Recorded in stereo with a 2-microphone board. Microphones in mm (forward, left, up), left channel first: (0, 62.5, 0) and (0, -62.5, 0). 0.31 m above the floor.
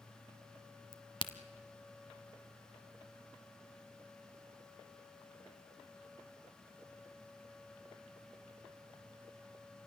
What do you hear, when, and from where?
0.9 s a crack: 40° left (ahead or behind), 1.1 m